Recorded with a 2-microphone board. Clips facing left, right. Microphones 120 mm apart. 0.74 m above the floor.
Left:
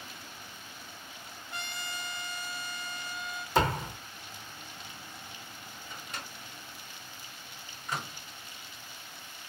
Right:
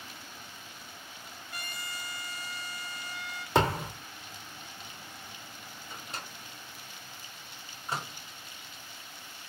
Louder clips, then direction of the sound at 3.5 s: Right 1 dB; 70° right (ahead or behind).